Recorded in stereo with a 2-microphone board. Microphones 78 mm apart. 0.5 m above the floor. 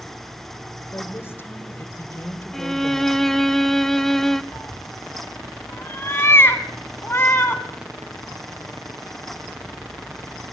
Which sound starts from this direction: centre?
A violin, at 2.5 s.